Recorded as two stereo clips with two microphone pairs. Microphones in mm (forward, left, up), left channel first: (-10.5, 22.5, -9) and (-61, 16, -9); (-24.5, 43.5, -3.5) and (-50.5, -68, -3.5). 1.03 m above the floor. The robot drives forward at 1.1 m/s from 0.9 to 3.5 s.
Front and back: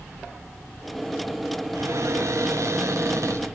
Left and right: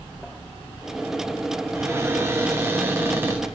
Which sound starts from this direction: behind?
A cupboard door, at 1.8 s.